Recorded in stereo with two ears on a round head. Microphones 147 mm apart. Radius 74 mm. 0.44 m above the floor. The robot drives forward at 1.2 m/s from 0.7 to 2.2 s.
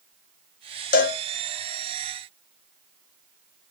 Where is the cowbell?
55° left (ahead or behind), 0.7 m.